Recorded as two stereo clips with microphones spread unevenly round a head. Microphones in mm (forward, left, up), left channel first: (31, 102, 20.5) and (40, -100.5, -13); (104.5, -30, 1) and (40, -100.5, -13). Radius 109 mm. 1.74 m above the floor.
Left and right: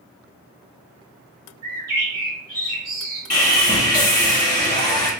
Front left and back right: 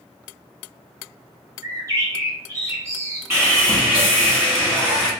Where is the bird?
95° right, 1.1 m.